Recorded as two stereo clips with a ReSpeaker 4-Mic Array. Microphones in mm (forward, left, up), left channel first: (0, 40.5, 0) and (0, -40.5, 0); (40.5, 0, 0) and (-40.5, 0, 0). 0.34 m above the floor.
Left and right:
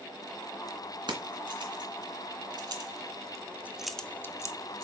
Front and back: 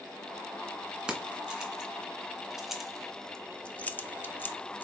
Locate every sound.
1.1 s keys jangling: 100° right, 2.5 m; by 4.8 s 60° left, 1.0 m